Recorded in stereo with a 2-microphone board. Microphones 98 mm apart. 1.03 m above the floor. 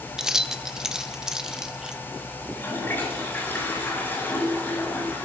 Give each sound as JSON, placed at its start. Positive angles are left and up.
{"t": 0.2, "sound": "keys jangling", "side_deg": -5, "distance_m": 0.7}
{"t": 2.5, "sound": "a toilet flushing", "side_deg": 25, "distance_m": 8.0}